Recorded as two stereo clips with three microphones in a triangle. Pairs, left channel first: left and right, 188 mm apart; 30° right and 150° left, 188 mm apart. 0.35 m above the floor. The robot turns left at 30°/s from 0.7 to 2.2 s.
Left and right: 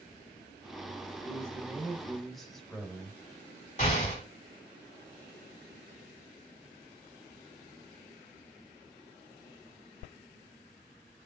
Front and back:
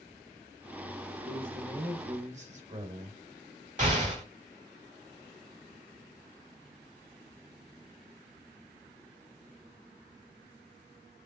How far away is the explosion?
About 2 m.